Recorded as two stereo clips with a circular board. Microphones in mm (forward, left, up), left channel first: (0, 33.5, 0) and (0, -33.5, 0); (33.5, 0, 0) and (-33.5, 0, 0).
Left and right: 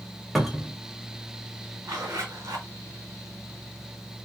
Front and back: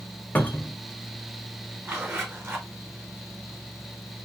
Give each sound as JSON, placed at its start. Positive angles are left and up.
{"t": 0.3, "sound": "a cupboard door", "azimuth_deg": -5, "distance_m": 0.6}
{"t": 1.9, "sound": "a zipper", "azimuth_deg": -125, "distance_m": 1.2}